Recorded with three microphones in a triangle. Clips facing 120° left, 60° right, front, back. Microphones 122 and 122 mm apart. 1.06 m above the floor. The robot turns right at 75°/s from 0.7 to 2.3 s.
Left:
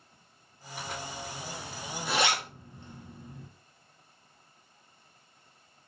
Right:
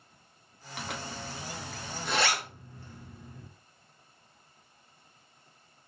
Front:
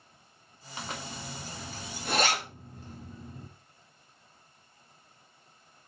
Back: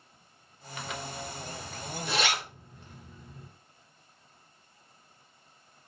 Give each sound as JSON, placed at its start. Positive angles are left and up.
{"t": 0.8, "sound": "a zipper", "azimuth_deg": -60, "distance_m": 2.0}